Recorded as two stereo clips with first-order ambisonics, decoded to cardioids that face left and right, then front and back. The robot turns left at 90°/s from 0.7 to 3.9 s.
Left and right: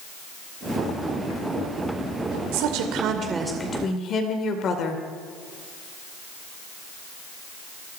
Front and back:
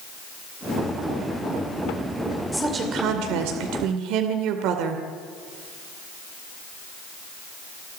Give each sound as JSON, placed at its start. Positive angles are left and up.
{"t": 2.5, "sound": "a woman speaking", "azimuth_deg": -90, "distance_m": 2.5}